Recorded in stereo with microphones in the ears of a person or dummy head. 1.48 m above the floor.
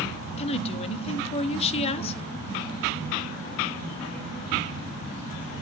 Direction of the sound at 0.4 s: 35° left (ahead or behind).